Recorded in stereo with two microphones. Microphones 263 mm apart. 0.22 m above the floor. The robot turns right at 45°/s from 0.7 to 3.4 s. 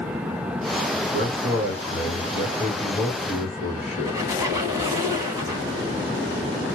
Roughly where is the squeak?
Centre.